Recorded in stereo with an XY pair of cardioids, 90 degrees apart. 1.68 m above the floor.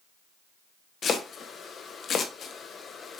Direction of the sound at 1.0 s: 60° left.